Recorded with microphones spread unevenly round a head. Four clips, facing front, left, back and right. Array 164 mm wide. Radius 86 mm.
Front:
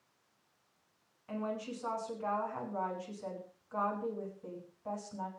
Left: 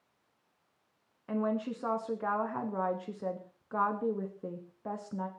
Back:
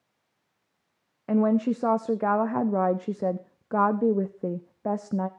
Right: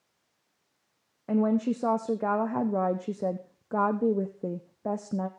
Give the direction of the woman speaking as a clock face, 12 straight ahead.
5 o'clock.